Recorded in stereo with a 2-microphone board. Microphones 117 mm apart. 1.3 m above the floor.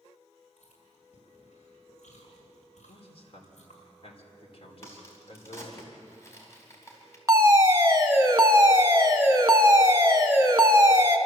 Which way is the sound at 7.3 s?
25° right (ahead or behind).